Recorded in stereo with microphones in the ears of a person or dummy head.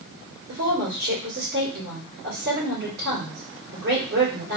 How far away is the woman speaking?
About 1.7 m.